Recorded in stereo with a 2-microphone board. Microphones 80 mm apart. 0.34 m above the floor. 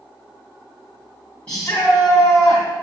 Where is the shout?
15° left (ahead or behind), 2.5 m.